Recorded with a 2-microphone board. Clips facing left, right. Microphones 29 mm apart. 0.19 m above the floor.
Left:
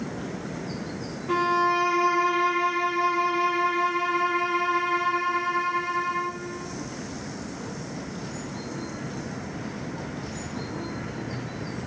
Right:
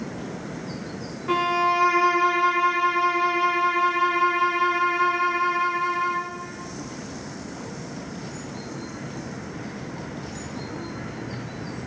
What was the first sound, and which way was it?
A violin, 70° right (ahead or behind).